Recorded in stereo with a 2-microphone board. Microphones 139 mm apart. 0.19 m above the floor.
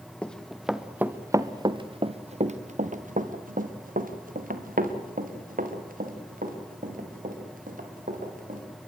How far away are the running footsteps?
About 1.8 m.